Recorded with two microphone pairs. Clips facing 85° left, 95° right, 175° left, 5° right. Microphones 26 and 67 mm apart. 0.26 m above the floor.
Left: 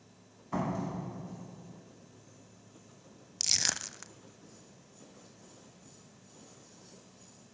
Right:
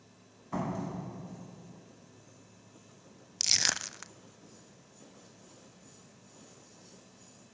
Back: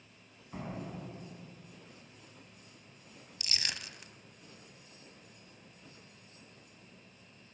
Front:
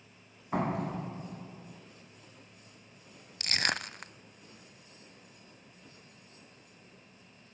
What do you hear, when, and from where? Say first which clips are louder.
0.5 s a door slam: left 1 dB, front 10 dB; straight ahead, 1.2 m
3.4 s crushing: right 2 dB, front 9 dB; 25° right, 0.6 m